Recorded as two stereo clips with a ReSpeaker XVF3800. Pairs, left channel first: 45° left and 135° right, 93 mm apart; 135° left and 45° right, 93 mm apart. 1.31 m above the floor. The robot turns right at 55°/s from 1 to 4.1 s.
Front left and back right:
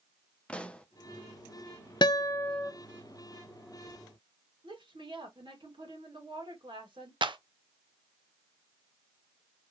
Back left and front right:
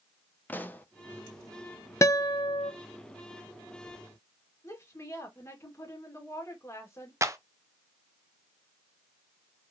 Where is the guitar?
80° left, 0.5 m; by 2.7 s 115° left, 0.5 m.